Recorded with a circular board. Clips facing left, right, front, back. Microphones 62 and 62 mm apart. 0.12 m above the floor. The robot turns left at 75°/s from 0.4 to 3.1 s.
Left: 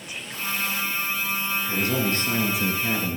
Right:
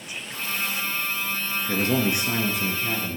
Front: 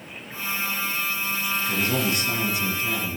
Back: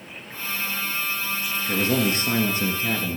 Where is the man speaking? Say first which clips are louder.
Right 3 dB, back 4 dB; 120° right, 1.8 m; by 3.2 s 135° left, 1.8 m.